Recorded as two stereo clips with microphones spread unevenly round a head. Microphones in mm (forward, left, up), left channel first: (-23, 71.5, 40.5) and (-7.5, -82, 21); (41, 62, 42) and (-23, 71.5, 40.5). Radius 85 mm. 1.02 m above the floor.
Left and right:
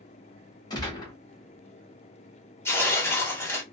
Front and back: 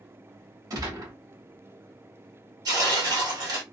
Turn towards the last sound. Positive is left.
turn(degrees=170)